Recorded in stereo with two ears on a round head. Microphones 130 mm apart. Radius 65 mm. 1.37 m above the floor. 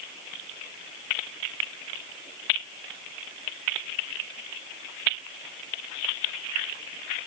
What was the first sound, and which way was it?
Only background noise.